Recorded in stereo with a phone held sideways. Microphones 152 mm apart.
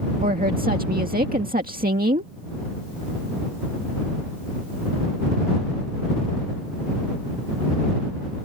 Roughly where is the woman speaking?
Right.